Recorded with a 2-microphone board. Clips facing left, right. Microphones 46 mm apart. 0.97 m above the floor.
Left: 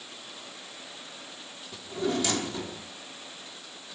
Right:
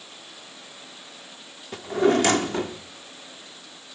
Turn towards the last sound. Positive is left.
turn(degrees=-60)  # may be behind; listen again after turning